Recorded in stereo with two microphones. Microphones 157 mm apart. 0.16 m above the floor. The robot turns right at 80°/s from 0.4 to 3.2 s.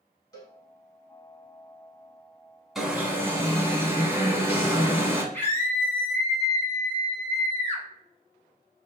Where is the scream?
10° left (ahead or behind), 1.0 m.